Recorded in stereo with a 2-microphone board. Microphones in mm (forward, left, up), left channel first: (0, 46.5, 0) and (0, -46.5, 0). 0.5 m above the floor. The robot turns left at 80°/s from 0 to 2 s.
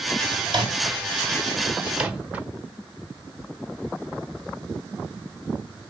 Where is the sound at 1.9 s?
10° right (ahead or behind), 0.9 m; by 2.5 s 15° right (ahead or behind), 0.9 m.